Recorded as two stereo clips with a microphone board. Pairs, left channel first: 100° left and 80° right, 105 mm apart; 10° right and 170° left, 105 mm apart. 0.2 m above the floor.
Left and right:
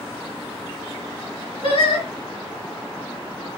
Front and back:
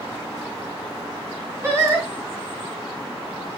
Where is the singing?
115° left, 2.5 m.